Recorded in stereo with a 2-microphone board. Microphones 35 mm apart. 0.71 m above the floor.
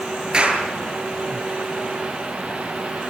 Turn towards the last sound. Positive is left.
turn(degrees=-25)  # may be behind; listen again after turning